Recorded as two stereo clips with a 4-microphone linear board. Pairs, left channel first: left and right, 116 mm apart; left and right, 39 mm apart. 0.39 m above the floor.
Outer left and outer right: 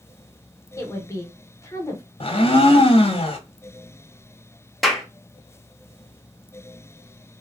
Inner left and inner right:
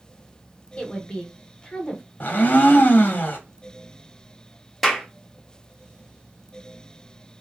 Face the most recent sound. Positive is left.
turn(degrees=0)  # may be behind; listen again after turning